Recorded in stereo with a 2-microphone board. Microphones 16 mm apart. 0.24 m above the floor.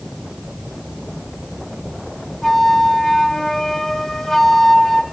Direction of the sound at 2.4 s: 10° left (ahead or behind).